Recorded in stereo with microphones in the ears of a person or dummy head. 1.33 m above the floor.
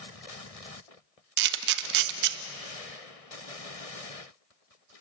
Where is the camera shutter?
70° right (ahead or behind), 1.1 m.